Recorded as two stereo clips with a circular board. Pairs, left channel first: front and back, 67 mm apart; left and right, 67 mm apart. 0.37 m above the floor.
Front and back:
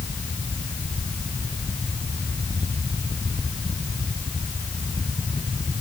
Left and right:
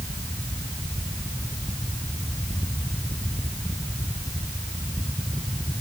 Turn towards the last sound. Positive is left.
No sound to turn to.